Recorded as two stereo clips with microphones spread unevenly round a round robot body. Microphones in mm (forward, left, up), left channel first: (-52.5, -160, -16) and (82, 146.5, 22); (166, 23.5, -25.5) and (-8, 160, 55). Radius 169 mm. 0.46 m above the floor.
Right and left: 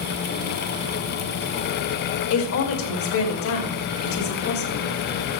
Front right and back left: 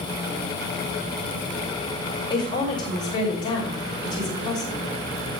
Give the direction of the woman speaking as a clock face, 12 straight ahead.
3 o'clock.